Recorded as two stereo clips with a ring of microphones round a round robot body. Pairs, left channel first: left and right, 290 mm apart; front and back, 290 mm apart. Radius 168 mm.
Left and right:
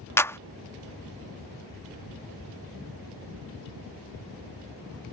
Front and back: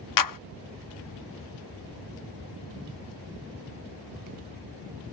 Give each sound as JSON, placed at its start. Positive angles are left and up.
{"t": 0.2, "sound": "a clap", "azimuth_deg": 10}